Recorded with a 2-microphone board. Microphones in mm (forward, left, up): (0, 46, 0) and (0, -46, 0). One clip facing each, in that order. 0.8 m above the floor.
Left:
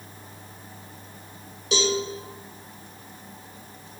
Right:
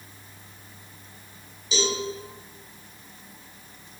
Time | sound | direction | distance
1.7 | a cowbell | 65° left (ahead or behind) | 1.4 m